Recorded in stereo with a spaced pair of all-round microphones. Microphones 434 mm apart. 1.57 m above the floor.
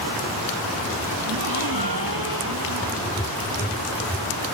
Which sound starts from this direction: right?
A gasp, at 1.2 s.